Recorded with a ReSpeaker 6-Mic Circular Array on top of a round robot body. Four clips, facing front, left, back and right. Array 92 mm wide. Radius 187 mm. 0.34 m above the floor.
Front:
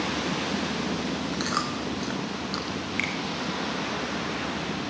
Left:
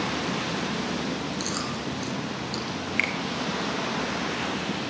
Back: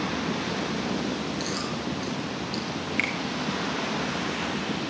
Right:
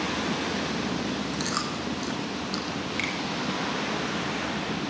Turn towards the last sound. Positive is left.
turn(degrees=105)